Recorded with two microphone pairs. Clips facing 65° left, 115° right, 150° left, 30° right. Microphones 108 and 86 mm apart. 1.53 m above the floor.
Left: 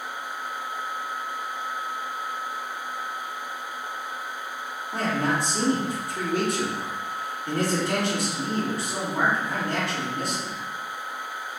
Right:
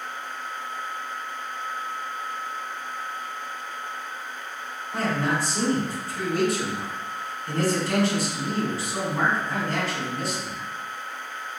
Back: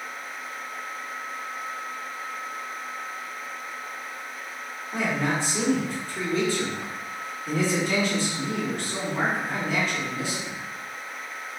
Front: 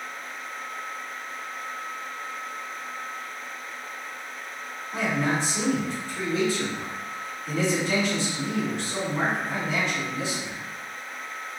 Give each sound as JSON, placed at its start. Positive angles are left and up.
{"t": 4.9, "sound": "a man speaking", "azimuth_deg": 100, "distance_m": 1.9}